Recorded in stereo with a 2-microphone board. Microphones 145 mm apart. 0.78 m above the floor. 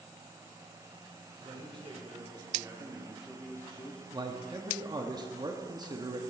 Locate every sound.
1.4 s a man speaking: 40° right (ahead or behind), 2.5 m; by 4.0 s 40° left (ahead or behind), 1.0 m
4.1 s a man speaking: 30° right (ahead or behind), 1.0 m